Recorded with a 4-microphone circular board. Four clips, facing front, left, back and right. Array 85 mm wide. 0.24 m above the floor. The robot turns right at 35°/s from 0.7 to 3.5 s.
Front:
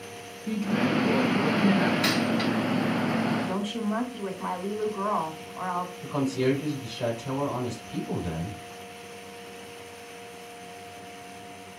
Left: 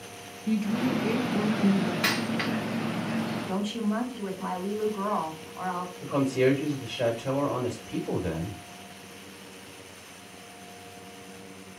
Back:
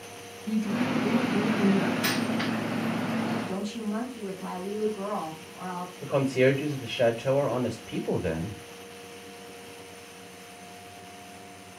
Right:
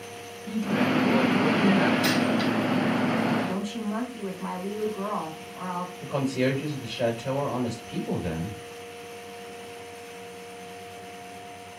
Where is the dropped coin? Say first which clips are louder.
Right 5 dB, front 3 dB; 75° left, 3 m; by 2.5 s 90° left, 3 m.